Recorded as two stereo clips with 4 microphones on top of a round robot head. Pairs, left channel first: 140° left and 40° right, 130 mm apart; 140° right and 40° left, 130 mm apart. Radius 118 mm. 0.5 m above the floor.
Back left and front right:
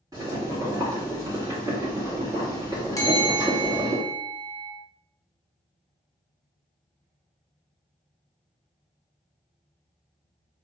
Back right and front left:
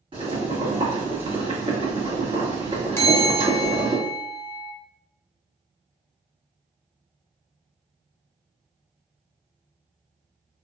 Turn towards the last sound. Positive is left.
turn(degrees=170)